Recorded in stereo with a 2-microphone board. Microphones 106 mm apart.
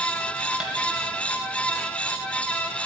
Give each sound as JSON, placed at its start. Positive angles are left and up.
{"t": 0.6, "sound": "tapping", "side_deg": -10, "distance_m": 2.5}